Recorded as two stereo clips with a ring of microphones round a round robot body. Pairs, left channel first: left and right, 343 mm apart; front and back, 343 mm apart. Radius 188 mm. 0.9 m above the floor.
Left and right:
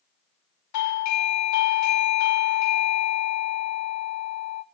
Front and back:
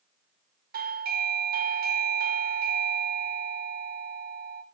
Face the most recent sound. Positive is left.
turn(degrees=120)